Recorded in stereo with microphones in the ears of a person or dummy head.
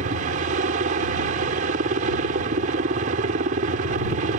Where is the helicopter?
40° right (ahead or behind).